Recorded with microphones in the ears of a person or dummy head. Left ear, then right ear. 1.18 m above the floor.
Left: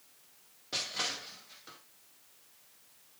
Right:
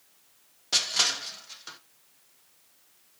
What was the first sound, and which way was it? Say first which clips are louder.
Crushing: right 10 dB; 40° right (ahead or behind).